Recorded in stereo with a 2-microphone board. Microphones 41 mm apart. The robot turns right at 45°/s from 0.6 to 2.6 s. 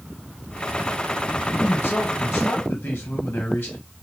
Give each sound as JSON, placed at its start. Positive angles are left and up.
{"t": 1.6, "sound": "a man speaking", "azimuth_deg": 65, "distance_m": 1.6}